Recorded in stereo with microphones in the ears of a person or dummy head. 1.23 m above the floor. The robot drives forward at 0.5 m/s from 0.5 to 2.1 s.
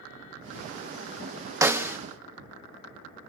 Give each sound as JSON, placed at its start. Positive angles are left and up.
{"t": 1.6, "sound": "a snare drum", "side_deg": -10, "distance_m": 0.6}